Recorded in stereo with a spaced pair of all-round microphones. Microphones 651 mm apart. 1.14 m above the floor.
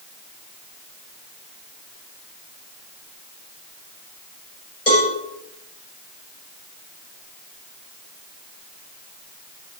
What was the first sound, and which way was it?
A cowbell, 70° left (ahead or behind).